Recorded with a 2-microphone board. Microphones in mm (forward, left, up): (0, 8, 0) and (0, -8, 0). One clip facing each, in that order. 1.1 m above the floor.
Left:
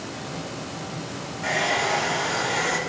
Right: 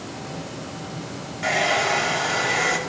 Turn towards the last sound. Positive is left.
turn(degrees=-75)  # may be behind; listen again after turning